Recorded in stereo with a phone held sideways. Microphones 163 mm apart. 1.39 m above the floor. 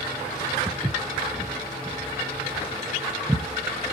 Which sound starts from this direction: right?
Footsteps, at 0.7 s.